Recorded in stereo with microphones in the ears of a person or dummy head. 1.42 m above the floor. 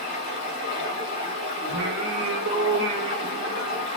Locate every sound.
0.0 s running water: 30° right (ahead or behind), 1.4 m
1.7 s singing: 55° right (ahead or behind), 1.0 m